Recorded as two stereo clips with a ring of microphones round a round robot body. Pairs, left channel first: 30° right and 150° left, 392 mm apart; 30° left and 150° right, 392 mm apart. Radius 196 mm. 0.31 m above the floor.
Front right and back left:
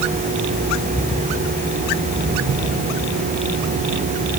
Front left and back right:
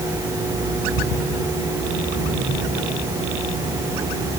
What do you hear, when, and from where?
Only background noise.